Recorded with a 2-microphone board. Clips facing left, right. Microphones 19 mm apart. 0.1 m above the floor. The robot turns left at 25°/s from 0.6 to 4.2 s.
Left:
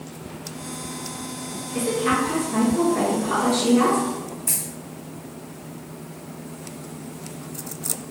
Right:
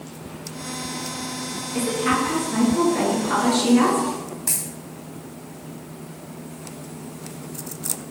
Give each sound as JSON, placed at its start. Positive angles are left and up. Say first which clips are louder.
{"t": 1.7, "sound": "a woman speaking", "louder": "even", "azimuth_deg": -20, "distance_m": 1.5}
{"t": 4.5, "sound": "a dropped coin", "louder": "right 1 dB", "side_deg": -65, "distance_m": 1.5}